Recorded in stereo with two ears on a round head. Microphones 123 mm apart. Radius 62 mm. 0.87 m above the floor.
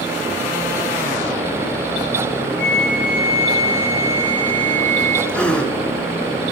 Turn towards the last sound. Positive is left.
turn(degrees=10)  # may be behind; listen again after turning